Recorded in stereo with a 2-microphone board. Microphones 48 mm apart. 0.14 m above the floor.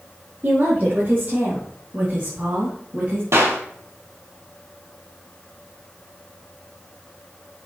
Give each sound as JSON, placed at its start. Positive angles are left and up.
{"t": 0.4, "sound": "a woman speaking", "side_deg": -40, "distance_m": 5.0}
{"t": 3.3, "sound": "a clap", "side_deg": -60, "distance_m": 3.0}